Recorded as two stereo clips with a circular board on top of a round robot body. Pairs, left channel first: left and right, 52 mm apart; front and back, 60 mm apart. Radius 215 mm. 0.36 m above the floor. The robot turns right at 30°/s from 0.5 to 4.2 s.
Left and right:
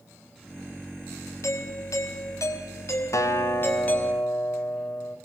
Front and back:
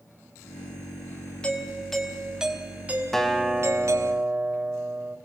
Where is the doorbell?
70° left, 5 m; by 4.1 s 150° left, 5 m.